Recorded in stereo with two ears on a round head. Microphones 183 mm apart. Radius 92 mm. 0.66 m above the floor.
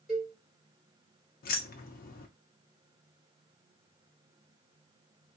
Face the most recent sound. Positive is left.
turn(degrees=45)  # may be behind; listen again after turning